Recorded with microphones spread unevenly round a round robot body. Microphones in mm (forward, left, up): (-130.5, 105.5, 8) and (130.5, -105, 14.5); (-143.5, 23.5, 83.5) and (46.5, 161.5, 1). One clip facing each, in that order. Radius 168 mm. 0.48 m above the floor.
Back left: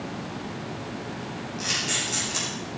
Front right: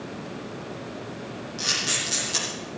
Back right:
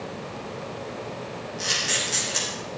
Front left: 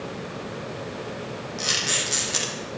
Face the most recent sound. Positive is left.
turn(degrees=15)